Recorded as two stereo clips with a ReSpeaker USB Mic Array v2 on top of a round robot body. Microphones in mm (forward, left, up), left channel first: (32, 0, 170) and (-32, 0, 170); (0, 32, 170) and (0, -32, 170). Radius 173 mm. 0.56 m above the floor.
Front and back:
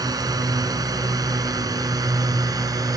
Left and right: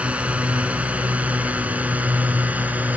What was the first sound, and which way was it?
A drone, 160° right.